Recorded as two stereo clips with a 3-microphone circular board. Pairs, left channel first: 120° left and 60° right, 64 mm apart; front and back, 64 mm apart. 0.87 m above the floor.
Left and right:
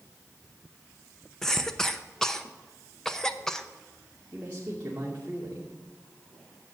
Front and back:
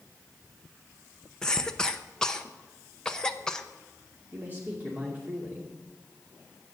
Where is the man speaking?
120° right, 2.5 m.